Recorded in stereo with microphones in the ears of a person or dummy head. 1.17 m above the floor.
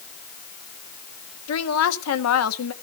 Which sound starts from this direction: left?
A woman speaking, at 1.5 s.